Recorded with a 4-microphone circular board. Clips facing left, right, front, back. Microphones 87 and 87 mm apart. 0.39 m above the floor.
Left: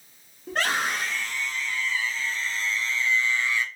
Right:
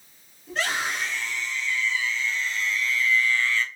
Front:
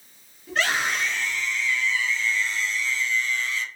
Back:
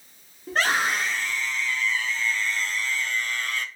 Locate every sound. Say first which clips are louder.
0.5 s a scream: left 2 dB, back 1 dB; 130° left, 4 m; by 3.7 s 165° left, 1.4 m